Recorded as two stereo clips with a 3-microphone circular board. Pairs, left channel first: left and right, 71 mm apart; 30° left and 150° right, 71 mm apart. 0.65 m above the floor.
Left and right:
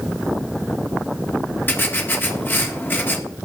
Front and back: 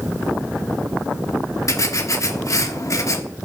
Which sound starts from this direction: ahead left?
Writing, at 1.7 s.